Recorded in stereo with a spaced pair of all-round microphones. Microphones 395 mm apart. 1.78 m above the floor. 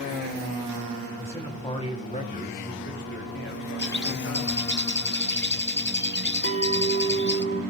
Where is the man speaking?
5° left (ahead or behind), 2.5 m; by 4.7 s 40° left (ahead or behind), 4 m.